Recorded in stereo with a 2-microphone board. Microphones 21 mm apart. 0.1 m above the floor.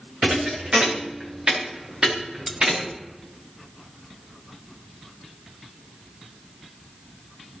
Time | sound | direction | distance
0.2 | a thud | 50° right (ahead or behind) | 4.5 m
2.5 | cutlery clinking | 20° right (ahead or behind) | 0.8 m